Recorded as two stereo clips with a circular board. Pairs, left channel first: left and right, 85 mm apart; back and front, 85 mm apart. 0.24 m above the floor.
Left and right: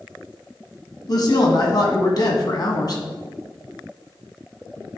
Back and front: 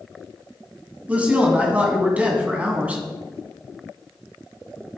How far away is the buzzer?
I don't hear a buzzer.